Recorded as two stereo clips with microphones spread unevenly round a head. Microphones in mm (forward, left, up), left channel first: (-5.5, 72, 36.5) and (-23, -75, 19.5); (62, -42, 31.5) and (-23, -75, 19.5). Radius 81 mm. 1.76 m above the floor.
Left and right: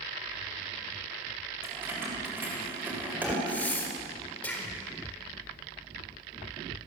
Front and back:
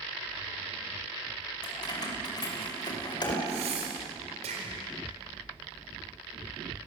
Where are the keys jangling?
20° right, 6 m; by 3.4 s 15° right, 5 m.